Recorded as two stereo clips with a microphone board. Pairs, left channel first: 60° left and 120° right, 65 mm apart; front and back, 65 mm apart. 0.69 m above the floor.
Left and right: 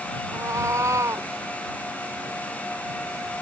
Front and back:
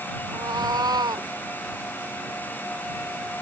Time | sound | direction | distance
0.3 | a cat meowing | 165° right | ?